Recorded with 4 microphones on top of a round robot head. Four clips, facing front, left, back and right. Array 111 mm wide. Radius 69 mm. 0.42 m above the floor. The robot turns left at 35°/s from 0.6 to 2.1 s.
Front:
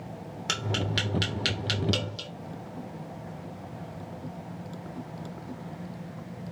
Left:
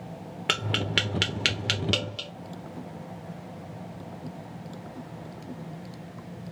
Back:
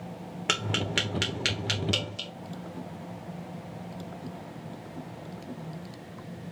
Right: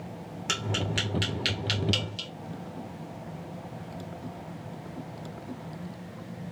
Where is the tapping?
120° left, 1.3 m; by 2.3 s 70° left, 1.3 m.